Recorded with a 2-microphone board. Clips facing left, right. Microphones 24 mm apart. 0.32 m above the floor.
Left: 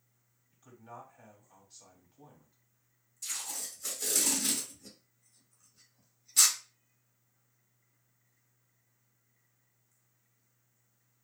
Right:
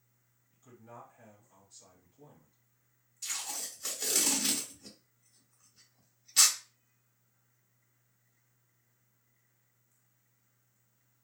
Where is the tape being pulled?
20° right (ahead or behind), 1.2 m.